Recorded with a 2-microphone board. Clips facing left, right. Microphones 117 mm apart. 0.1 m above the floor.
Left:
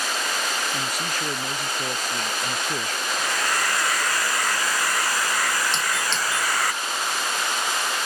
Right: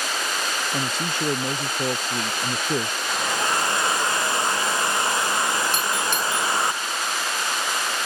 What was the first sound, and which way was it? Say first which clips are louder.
A man speaking: right 2 dB; 30° right (ahead or behind).